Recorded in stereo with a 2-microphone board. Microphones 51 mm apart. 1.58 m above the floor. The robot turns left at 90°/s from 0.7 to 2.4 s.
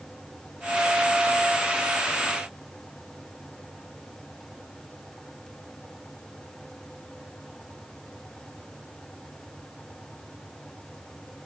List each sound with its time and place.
Only background noise.